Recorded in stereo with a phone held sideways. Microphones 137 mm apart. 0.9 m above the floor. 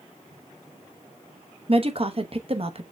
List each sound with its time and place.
1.7 s a woman speaking: 45° right (ahead or behind), 0.9 m